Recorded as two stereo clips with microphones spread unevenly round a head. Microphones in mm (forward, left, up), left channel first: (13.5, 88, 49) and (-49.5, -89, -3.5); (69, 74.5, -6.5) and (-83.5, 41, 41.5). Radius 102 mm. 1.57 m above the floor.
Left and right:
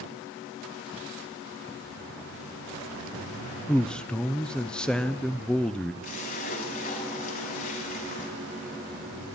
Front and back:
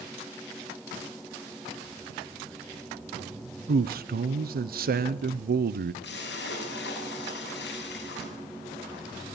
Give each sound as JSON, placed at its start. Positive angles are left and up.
{"t": 3.7, "sound": "a man speaking", "azimuth_deg": 160, "distance_m": 0.9}
{"t": 6.0, "sound": "a splash", "azimuth_deg": 25, "distance_m": 7.0}